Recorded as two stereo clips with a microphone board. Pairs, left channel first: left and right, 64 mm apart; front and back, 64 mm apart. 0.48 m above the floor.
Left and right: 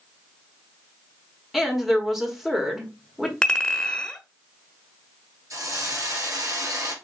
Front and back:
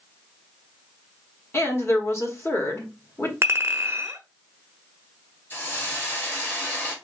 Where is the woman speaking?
5° right, 1.4 m.